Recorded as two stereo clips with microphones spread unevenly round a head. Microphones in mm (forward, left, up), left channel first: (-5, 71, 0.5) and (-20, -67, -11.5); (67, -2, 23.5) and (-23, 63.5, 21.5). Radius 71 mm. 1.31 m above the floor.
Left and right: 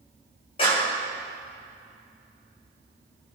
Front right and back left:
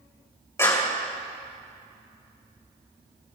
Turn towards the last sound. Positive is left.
turn(degrees=30)